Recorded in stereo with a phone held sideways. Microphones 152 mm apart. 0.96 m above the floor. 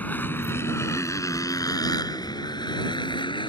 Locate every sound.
0.0 s a motorcycle: 10° left (ahead or behind); by 3.5 s 30° left (ahead or behind)